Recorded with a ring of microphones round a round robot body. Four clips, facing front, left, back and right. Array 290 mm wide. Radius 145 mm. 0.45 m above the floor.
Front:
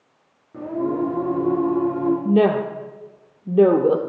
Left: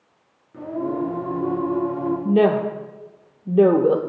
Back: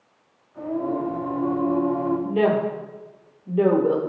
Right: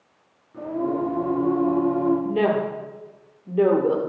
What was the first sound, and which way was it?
Singing, 15° left.